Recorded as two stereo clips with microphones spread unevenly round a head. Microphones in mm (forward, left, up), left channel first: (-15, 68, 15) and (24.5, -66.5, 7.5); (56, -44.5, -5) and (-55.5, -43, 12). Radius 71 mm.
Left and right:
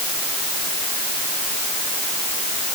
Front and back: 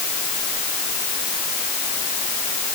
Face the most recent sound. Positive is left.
No sound to turn to.